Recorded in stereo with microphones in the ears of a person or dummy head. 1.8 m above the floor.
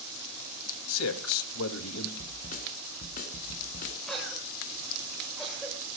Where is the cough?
Centre (ahead or behind), 7 m.